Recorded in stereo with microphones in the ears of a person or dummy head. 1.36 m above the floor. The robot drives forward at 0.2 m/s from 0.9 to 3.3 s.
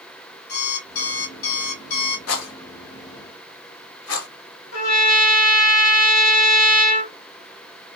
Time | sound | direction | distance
0.5 | an alarm clock | 45° left (ahead or behind) | 1.4 m
2.3 | a rattle | 80° left | 1.2 m
4.7 | a trumpet | 65° left (ahead or behind) | 0.9 m